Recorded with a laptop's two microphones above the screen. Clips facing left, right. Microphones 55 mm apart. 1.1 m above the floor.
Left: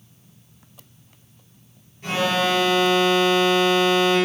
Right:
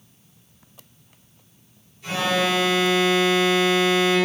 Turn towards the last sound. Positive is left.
turn(degrees=45)  # may be behind; listen again after turning